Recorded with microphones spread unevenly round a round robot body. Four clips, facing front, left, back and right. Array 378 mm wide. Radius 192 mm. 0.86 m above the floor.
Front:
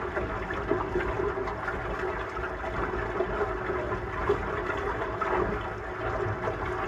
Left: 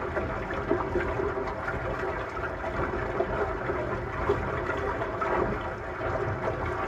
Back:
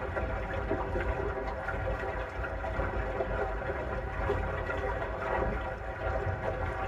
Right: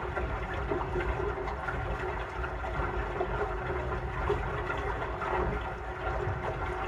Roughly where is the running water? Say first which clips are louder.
Left 4 dB, front 3 dB; ahead left.